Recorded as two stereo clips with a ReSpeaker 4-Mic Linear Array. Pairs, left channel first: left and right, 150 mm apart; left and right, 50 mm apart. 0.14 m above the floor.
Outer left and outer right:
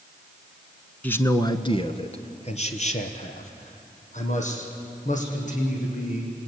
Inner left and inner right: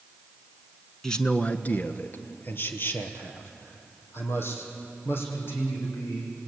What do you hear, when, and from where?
1.0 s a man speaking: 10° left (ahead or behind), 1.0 m; by 6.5 s 55° left (ahead or behind), 7 m